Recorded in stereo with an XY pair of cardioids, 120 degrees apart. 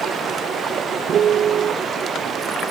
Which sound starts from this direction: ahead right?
A piano, at 1.1 s.